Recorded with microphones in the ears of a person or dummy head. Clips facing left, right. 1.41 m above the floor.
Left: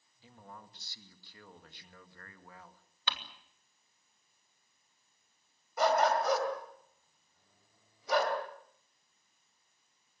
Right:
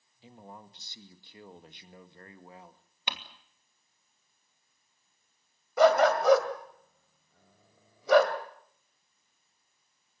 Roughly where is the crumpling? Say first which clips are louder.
Right 1 dB; centre.